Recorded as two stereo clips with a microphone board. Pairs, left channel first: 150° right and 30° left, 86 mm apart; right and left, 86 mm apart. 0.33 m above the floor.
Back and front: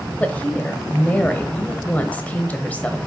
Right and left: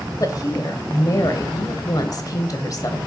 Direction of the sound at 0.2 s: 85° right.